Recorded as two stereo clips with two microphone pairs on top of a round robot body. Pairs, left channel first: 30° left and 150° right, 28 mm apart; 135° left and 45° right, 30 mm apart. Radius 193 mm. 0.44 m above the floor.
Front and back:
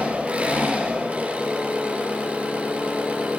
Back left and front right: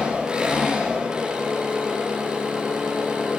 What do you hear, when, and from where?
0.0 s an engine running: 115° right, 7.5 m